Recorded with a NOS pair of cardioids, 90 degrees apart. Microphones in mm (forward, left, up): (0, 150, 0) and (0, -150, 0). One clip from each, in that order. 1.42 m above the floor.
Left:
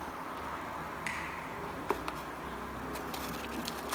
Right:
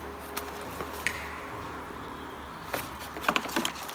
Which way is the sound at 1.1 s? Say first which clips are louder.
Right 6 dB; 50° right.